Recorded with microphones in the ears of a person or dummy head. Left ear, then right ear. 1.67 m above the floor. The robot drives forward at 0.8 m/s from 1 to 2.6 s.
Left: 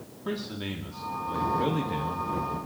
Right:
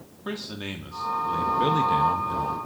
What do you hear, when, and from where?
0.2 s a man speaking: 25° right (ahead or behind), 1.4 m; by 2.6 s 55° right (ahead or behind), 0.7 m